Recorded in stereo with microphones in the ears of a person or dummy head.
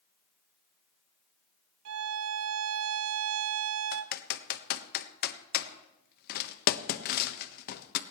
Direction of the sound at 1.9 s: 85° right.